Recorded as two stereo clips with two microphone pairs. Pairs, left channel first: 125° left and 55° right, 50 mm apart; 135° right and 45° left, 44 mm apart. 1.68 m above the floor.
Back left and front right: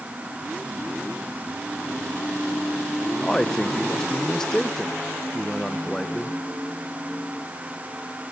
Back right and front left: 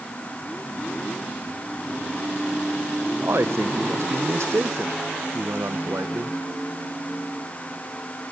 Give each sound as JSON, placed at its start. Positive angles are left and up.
{"t": 3.2, "sound": "a man speaking", "azimuth_deg": 50, "distance_m": 1.0}